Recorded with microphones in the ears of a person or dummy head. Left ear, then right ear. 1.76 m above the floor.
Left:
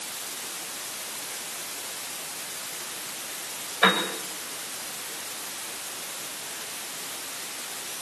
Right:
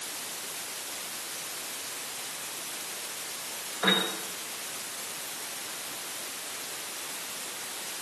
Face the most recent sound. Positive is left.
turn(degrees=65)  # may be behind; listen again after turning